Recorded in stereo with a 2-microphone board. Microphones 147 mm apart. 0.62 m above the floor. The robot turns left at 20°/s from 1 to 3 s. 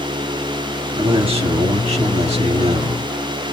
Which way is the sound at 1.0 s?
60° right.